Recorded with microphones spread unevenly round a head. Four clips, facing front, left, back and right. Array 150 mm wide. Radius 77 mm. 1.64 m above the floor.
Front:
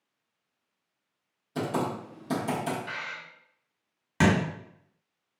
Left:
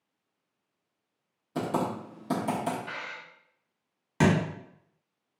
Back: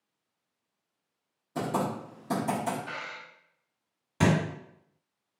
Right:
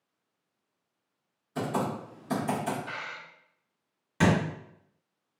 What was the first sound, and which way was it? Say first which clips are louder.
Typing on a keyboard: left 1 dB, even; 100° left.